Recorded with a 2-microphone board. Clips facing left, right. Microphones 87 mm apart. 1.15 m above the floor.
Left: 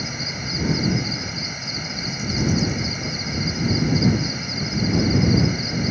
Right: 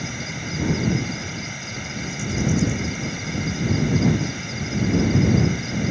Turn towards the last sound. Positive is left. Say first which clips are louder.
# even
turn(degrees=5)  # may be behind; listen again after turning